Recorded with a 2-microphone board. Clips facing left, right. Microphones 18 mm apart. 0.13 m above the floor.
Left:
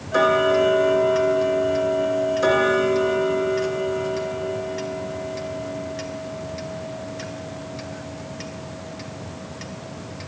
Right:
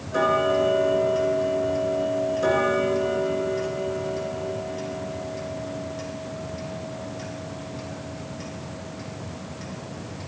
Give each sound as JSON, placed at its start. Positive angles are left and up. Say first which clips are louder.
{"t": 0.1, "sound": "ticking", "louder": "left 4 dB", "side_deg": 35, "distance_m": 1.5}